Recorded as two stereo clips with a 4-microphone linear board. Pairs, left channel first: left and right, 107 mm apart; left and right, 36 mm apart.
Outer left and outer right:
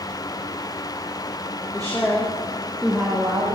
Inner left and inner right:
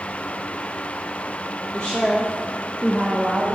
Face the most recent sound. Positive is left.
turn(degrees=-40)  # may be behind; listen again after turning